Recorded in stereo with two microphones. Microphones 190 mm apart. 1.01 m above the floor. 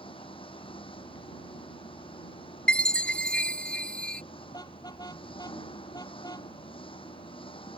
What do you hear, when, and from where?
0.0 s an engine running: 30° left (ahead or behind)
2.7 s a chime: 5° left (ahead or behind)
4.5 s a car horn: 20° left (ahead or behind)